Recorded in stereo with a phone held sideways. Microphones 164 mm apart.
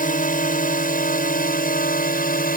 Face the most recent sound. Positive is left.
turn(degrees=60)  # may be behind; listen again after turning